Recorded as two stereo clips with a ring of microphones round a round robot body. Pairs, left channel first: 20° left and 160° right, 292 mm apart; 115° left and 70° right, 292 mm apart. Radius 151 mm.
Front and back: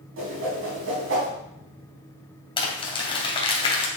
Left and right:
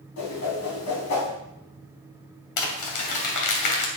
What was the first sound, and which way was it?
A whoosh, 155° left.